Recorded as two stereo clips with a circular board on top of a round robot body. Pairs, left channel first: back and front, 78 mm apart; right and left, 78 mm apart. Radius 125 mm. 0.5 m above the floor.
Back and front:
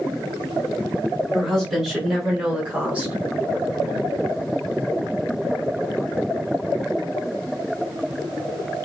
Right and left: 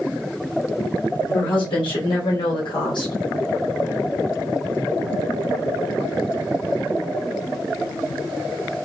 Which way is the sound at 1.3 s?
95° right.